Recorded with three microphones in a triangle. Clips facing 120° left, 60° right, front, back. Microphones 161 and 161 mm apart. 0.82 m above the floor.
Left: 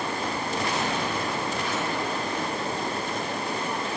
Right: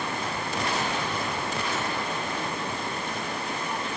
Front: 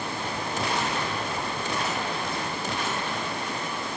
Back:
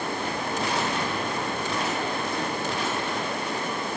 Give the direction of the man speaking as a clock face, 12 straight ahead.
No man speaking in this recording.